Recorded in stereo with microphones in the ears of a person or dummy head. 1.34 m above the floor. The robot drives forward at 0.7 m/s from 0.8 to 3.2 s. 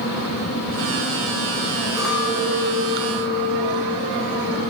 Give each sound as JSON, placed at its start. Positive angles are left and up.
{"t": 2.0, "sound": "a clink", "side_deg": 0, "distance_m": 0.8}